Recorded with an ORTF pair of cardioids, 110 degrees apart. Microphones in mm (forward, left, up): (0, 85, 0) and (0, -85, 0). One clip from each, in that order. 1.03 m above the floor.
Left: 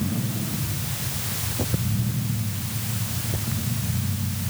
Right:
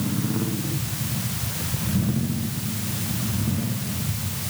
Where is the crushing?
I don't hear crushing.